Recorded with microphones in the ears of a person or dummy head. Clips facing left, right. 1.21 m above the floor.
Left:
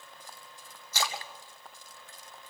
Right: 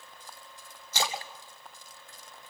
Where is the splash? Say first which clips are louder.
Right 2 dB; 20° right (ahead or behind), 1.9 m.